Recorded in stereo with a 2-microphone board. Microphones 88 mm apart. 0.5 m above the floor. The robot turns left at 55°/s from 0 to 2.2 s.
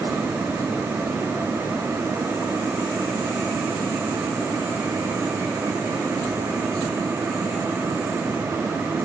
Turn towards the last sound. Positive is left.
No sound to turn to.